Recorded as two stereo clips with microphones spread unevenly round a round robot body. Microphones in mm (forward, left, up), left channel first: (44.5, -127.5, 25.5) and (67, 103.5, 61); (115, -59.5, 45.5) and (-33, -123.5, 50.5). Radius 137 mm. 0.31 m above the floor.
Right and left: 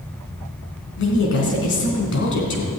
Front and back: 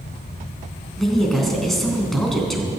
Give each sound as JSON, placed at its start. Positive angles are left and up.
{"t": 1.0, "sound": "a woman speaking", "azimuth_deg": -65, "distance_m": 3.5}